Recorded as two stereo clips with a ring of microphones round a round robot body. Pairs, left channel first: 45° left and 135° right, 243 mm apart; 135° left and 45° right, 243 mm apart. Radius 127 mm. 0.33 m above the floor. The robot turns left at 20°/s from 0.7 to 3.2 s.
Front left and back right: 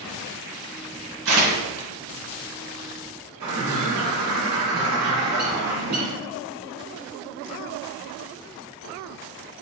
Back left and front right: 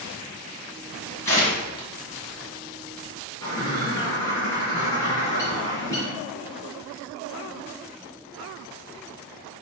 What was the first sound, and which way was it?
Tearing paper, 145° right.